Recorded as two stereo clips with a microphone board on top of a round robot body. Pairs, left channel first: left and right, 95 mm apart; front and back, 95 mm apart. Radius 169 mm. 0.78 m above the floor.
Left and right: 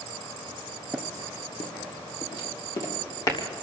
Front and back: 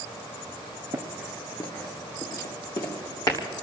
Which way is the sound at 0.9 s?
165° left.